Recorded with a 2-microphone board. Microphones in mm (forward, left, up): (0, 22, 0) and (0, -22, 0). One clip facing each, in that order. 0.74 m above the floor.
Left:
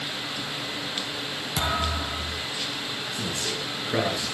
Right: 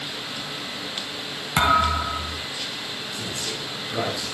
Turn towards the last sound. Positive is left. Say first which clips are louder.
# left 1 dB
turn(degrees=45)  # may be behind; listen again after turning